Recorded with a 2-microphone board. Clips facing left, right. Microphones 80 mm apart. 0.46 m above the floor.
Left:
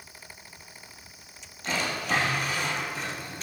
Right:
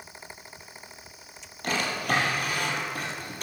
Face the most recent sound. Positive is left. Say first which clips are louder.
# right 2 dB
turn(degrees=-60)  # may be behind; listen again after turning